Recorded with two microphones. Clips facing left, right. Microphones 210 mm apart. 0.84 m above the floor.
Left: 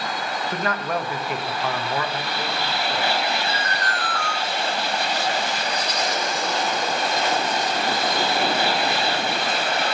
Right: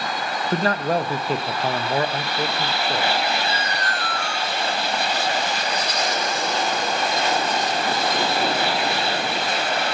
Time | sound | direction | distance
0.5 | a man speaking | 35° right (ahead or behind) | 0.6 m
3.5 | an alarm | 25° right (ahead or behind) | 4 m